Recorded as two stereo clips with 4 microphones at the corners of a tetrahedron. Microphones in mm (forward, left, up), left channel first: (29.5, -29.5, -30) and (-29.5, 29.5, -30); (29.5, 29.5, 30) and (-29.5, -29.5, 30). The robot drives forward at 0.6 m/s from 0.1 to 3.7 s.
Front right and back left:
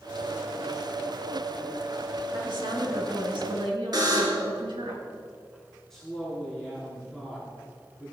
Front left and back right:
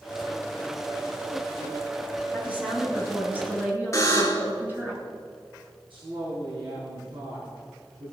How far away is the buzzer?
About 2.5 m.